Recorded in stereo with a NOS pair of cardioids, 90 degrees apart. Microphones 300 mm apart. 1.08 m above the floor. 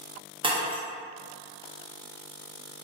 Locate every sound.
0.4 s breaking glass: 15° right, 0.8 m